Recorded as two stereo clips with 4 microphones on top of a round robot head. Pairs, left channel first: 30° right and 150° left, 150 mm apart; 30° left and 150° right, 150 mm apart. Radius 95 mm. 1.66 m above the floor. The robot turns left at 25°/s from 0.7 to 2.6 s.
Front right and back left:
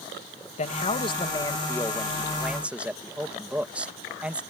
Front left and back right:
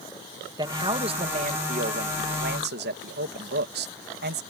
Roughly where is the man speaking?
Right.